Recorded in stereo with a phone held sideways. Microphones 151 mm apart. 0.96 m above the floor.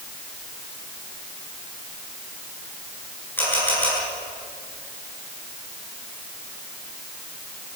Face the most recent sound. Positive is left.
turn(degrees=15)  # may be behind; listen again after turning